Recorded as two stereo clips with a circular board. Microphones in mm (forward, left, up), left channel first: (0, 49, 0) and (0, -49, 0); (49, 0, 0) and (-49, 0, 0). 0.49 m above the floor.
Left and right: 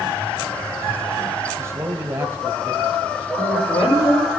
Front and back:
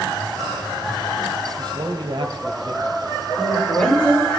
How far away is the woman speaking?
About 10 m.